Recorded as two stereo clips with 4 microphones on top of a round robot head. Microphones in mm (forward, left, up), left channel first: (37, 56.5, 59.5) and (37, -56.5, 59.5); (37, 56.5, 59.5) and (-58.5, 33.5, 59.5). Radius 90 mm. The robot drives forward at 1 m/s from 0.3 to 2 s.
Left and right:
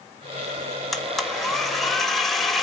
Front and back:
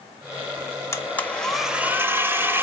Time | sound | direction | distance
0.9 | a blender | 5° left | 1.4 m